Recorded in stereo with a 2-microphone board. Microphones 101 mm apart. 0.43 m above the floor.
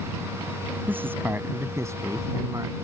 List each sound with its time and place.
0.9 s a man speaking: 15° right (ahead or behind); by 2.7 s 35° right (ahead or behind)